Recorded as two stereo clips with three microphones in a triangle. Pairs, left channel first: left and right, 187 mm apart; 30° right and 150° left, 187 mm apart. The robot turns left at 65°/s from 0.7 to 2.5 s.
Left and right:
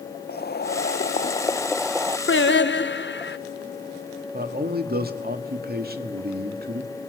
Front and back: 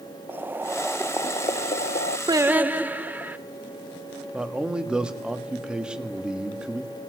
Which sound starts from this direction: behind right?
A man speaking, at 4.3 s.